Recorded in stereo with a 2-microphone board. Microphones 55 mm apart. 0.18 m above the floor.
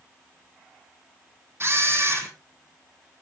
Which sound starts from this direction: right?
A camera shutter, at 1.6 s.